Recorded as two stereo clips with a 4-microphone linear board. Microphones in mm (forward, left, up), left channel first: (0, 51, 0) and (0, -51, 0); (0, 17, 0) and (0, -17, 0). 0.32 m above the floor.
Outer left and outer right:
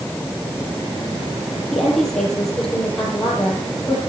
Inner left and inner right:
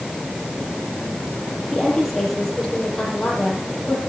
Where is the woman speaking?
5° left (ahead or behind), 8 m.